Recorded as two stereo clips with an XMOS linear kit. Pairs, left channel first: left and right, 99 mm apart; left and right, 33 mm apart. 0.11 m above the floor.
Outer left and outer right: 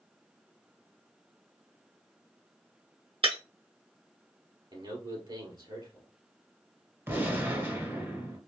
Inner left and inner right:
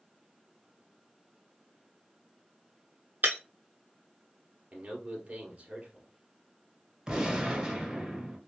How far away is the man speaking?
About 2 m.